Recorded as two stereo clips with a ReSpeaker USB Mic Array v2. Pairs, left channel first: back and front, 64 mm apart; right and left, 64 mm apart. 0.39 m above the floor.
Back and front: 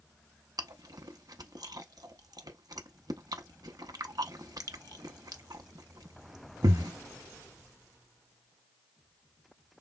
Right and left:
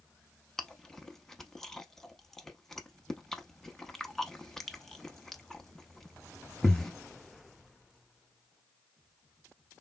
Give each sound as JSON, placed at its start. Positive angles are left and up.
{"t": 0.6, "sound": "chewing", "azimuth_deg": -10, "distance_m": 0.6}